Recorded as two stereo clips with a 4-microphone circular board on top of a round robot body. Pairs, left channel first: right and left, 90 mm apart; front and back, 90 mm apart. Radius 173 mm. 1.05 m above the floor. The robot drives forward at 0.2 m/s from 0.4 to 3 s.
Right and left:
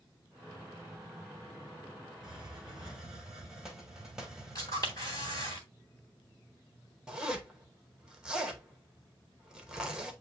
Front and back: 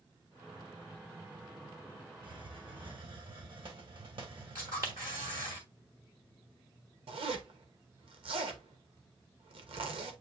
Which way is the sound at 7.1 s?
170° left.